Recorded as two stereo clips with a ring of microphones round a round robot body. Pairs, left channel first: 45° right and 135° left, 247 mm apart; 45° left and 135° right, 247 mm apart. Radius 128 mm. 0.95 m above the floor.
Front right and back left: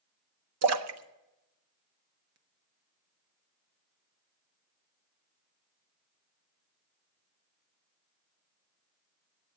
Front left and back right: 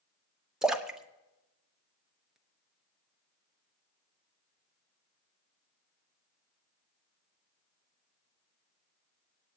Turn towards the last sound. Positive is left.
turn(degrees=140)